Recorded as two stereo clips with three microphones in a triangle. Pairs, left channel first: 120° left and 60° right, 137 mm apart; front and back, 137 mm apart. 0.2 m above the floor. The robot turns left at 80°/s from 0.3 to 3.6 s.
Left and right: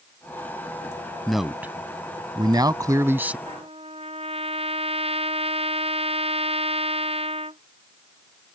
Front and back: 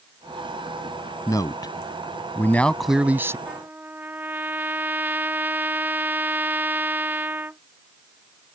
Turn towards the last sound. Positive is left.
turn(degrees=-105)